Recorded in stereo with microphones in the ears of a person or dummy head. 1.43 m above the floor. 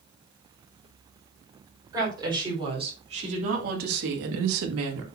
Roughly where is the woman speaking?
Centre.